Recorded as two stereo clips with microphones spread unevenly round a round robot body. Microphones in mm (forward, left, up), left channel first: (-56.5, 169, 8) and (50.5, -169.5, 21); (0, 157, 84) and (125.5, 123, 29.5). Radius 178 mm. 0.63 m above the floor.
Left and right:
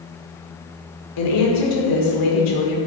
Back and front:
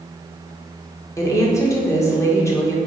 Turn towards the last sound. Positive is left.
turn(degrees=85)